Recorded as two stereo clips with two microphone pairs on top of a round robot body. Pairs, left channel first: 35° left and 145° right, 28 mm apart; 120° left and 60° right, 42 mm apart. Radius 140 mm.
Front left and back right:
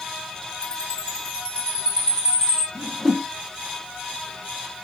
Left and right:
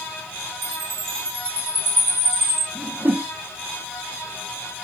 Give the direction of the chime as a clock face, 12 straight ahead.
1 o'clock.